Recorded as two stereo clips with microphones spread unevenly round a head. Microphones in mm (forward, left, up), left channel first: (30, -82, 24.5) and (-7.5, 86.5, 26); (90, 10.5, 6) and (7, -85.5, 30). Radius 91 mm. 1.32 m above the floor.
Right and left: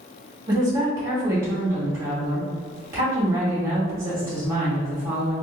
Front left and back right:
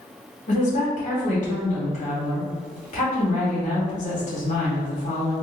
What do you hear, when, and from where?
0.5 s a woman speaking: 30° left, 1.9 m